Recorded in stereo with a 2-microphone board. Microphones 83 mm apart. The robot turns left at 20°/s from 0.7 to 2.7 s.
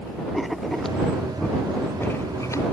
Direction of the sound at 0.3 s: Centre (ahead or behind).